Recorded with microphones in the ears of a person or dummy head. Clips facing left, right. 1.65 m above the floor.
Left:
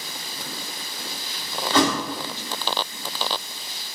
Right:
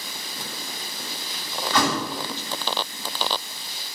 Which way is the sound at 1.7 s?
25° left (ahead or behind).